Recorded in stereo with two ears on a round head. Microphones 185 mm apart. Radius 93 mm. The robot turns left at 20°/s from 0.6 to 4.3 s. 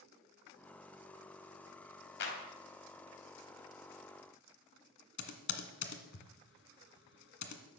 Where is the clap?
60° left (ahead or behind), 3 m; by 2.4 s 65° left (ahead or behind), 3 m.